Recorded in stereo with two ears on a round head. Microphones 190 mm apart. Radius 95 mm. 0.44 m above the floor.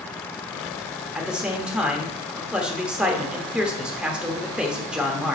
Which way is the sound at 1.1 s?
5° right (ahead or behind).